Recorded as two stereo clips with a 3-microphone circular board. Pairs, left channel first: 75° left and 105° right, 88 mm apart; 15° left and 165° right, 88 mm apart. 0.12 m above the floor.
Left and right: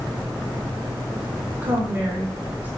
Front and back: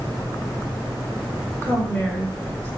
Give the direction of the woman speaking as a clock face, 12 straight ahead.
2 o'clock.